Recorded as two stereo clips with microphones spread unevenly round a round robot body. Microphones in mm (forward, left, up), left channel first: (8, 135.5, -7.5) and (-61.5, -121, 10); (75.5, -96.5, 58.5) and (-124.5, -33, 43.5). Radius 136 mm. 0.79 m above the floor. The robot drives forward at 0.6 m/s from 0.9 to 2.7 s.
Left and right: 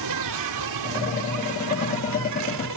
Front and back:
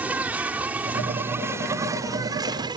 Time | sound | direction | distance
0.0 | an insect | 115° right | ?